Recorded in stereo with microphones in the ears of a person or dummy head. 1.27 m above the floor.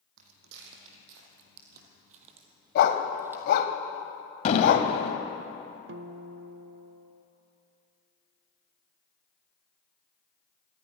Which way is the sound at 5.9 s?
70° right (ahead or behind).